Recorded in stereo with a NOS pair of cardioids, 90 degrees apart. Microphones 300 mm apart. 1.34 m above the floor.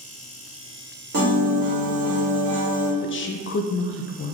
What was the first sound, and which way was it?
A piano, 55° right.